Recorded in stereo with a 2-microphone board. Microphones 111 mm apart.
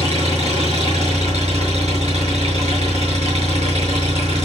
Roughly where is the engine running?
Right.